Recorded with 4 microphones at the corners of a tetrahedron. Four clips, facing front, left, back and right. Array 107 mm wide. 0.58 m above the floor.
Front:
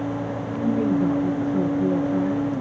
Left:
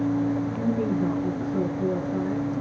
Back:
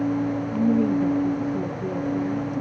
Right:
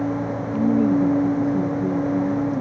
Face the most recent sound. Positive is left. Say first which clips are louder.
# right 7 dB, even
turn(degrees=30)